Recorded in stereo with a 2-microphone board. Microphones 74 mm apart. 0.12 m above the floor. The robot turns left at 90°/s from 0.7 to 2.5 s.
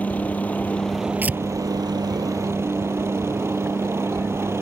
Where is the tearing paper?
25° right (ahead or behind); by 1.4 s 10° right (ahead or behind).